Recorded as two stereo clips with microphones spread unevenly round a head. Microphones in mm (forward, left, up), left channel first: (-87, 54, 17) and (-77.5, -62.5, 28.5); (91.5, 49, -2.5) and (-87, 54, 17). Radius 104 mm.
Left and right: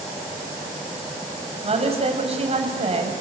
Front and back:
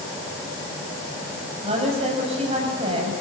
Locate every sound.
1.6 s a woman speaking: 120° right, 6.5 m